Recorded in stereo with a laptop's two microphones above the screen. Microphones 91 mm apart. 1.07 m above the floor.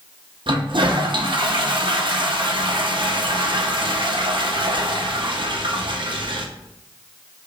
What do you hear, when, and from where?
0.5 s a toilet flushing: 60° right (ahead or behind), 0.6 m